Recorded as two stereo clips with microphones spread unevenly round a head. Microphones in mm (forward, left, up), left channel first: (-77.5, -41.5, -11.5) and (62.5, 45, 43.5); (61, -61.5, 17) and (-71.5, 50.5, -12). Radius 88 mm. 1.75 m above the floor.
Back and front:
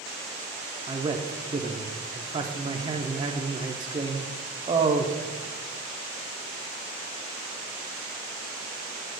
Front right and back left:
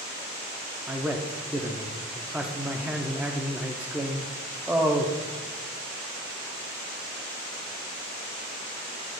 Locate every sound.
0.9 s a man speaking: 50° left, 0.5 m